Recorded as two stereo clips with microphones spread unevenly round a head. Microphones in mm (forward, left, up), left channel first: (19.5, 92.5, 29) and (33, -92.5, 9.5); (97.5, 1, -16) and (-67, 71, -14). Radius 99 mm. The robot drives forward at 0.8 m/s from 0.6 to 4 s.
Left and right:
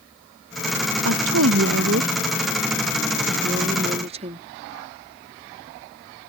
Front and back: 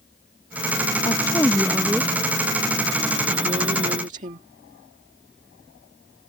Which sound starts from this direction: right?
A woman speaking, at 1.1 s.